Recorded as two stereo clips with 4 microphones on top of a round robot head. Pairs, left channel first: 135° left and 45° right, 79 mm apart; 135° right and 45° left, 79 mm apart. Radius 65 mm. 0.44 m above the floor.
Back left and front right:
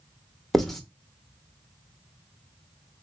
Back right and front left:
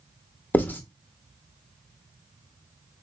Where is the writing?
145° right, 1.0 m.